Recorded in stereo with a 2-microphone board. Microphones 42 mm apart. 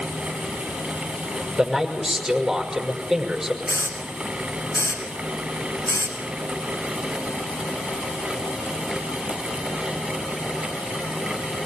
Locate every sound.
1.6 s a man speaking: 5° right (ahead or behind), 5.5 m
3.7 s a hiss: 85° left, 7.5 m